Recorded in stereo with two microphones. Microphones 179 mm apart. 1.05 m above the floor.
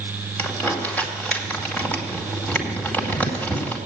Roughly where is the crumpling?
Centre.